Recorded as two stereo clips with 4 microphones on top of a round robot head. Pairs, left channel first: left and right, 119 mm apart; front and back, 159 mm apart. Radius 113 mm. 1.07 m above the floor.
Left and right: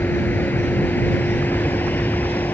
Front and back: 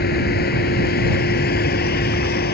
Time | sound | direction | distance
0.0 | a vehicle | 10° left | ?